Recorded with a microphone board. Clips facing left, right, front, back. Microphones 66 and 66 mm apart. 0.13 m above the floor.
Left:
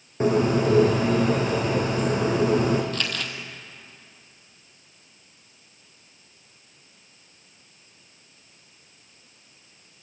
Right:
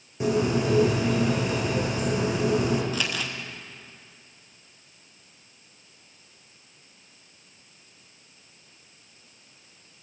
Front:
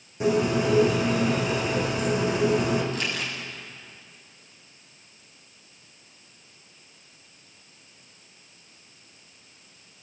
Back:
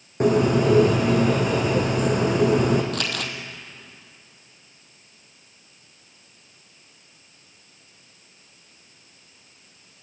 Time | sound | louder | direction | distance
0.2 | a bird | left 3 dB, back 4 dB | 140° left | 4.5 m
2.9 | crumpling | even, back 2 dB | 170° right | 2 m